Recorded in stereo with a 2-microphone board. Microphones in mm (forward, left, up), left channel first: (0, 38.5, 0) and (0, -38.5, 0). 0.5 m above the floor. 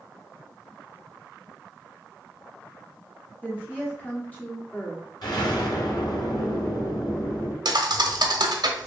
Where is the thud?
65° right (ahead or behind), 0.7 m.